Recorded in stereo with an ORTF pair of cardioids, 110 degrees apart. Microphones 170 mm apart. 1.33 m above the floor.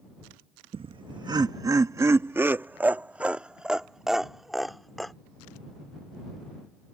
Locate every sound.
0.7 s laughter: 35° right; by 5.1 s straight ahead